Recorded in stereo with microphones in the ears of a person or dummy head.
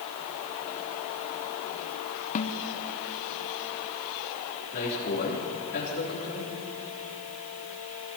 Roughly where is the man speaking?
Left.